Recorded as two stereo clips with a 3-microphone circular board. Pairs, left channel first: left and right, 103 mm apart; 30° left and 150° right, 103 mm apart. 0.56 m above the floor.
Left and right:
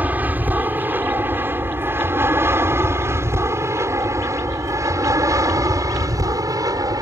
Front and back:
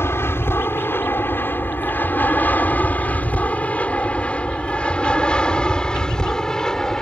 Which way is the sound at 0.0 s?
25° right.